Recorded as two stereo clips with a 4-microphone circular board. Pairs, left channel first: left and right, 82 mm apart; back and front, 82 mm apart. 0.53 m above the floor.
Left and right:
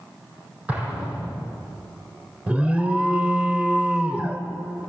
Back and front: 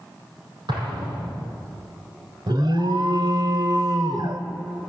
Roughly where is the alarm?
Ahead.